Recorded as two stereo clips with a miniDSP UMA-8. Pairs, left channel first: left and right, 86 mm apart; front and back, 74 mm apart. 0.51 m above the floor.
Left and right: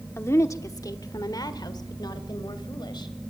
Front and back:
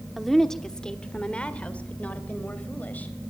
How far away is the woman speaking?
About 1.0 m.